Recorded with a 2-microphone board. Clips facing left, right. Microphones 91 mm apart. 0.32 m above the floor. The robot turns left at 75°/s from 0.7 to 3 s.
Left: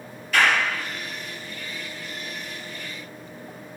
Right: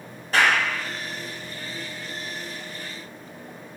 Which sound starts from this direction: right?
A clap, at 0.3 s.